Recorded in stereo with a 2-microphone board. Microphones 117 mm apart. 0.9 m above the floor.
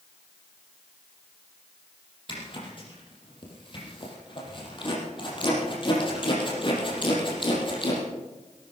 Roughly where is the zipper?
Left.